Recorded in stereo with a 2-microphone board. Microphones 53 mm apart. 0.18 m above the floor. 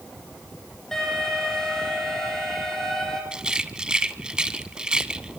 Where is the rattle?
15° right (ahead or behind), 1.0 m.